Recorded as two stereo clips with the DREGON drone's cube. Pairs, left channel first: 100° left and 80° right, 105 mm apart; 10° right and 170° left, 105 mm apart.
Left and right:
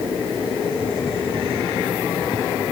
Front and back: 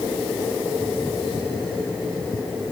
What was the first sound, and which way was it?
Only background noise.